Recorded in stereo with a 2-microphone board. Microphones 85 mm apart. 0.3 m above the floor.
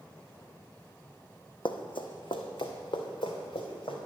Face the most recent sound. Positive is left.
turn(degrees=80)